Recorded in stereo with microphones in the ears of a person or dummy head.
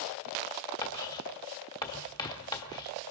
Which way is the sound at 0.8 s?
20° left (ahead or behind).